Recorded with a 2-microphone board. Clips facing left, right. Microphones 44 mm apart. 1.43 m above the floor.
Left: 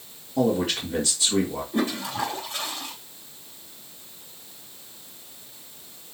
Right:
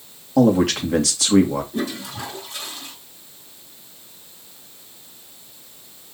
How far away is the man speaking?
About 2 m.